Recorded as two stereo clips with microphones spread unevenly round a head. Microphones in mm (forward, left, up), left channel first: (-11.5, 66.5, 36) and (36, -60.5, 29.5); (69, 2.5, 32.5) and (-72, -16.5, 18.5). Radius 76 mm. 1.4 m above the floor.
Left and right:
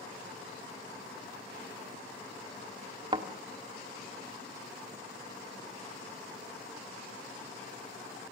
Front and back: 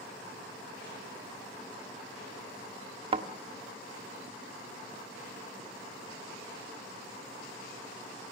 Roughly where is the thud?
Behind right.